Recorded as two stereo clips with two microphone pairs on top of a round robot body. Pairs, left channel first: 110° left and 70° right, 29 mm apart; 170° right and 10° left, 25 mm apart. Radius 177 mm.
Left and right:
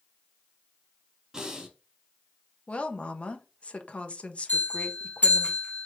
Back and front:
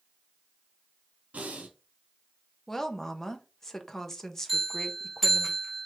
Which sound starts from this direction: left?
A bell, at 4.5 s.